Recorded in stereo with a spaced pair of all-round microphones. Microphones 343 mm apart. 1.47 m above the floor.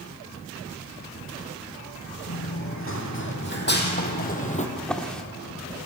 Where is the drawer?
Centre (ahead or behind), 1.3 m.